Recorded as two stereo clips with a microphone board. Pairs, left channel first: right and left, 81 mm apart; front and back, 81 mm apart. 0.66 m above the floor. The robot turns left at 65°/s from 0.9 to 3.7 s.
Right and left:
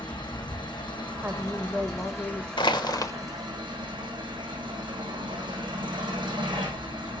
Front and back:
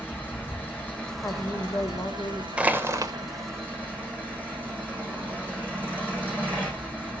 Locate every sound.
0.0 s an engine running: 70° right, 9.5 m; by 7.2 s 110° left, 9.5 m
1.2 s a woman speaking: 30° left, 1.3 m; by 2.5 s 50° right, 1.3 m
2.6 s crushing: 105° right, 1.1 m; by 3.1 s 140° right, 1.1 m